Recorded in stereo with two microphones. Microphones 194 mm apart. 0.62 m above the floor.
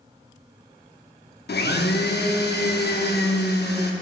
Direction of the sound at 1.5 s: 60° left (ahead or behind).